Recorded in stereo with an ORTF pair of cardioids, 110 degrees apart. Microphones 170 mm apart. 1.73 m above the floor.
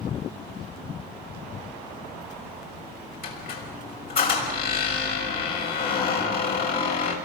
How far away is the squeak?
About 6 m.